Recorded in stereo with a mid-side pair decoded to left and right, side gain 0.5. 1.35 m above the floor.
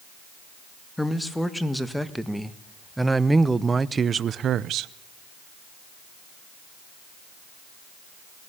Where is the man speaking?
5° left, 2.5 m; by 4.9 s 80° right, 0.7 m.